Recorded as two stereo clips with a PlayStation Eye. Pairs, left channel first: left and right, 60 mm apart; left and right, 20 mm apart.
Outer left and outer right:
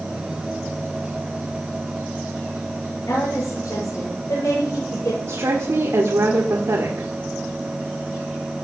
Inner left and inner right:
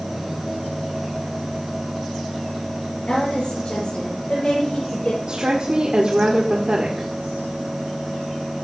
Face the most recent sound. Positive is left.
turn(degrees=-70)  # may be behind; listen again after turning